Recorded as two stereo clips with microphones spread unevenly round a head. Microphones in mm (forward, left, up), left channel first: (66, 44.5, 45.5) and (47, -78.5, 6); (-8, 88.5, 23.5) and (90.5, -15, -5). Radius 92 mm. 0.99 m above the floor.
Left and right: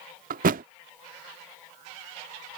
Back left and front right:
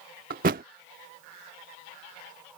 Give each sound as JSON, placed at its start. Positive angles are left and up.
{"t": 0.3, "sound": "a thud", "azimuth_deg": -85}